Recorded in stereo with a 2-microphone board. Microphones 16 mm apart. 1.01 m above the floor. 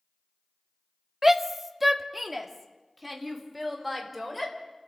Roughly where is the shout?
Centre.